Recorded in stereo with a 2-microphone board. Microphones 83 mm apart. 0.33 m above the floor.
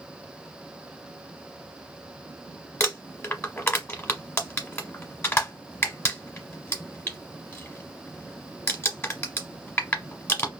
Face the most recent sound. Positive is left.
turn(degrees=30)  # may be behind; listen again after turning